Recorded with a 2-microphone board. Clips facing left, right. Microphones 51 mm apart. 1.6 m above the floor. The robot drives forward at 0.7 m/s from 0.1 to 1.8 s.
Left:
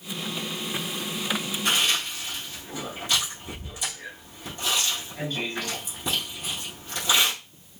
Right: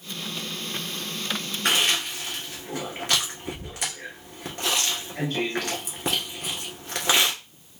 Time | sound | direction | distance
1.6 | chewing | 65° right (ahead or behind) | 1.4 m